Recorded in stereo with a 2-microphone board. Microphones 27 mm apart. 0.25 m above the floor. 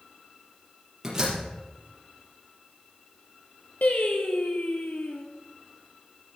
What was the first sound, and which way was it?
A door slam, 25° right (ahead or behind).